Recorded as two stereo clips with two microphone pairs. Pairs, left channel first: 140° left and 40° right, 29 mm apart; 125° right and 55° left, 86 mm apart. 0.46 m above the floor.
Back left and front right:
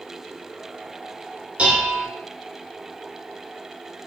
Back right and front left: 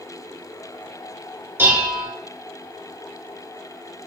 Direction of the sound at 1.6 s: Straight ahead.